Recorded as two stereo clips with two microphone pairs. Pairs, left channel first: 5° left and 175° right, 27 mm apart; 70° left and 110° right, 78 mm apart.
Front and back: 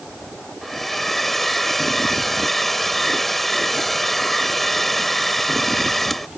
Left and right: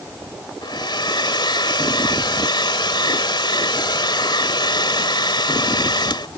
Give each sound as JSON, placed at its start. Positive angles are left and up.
{"t": 0.6, "sound": "a hair dryer", "azimuth_deg": 85}